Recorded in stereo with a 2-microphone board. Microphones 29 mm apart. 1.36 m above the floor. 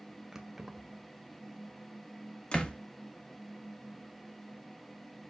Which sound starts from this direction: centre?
Keys jangling, at 0.3 s.